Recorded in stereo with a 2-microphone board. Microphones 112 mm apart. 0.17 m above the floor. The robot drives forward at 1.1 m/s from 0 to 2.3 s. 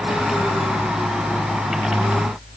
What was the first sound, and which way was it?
Only background noise.